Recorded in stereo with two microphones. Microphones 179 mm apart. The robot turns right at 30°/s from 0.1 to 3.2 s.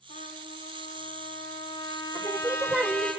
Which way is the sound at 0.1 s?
85° left.